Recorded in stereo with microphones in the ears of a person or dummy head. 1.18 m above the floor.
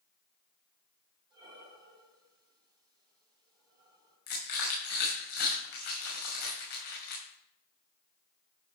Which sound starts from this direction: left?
Crushing, at 4.3 s.